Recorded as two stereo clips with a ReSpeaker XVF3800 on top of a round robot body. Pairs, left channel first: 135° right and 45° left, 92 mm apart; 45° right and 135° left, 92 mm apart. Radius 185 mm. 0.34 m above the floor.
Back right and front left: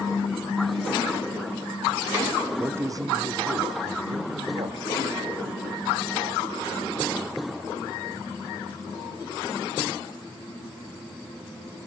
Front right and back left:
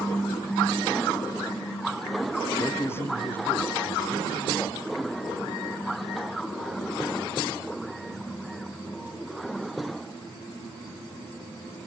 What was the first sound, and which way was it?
A man speaking, 15° right.